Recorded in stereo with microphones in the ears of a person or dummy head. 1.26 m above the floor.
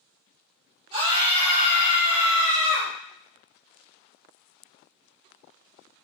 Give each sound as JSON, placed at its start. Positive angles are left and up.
{"t": 0.9, "sound": "a scream", "side_deg": -25, "distance_m": 0.6}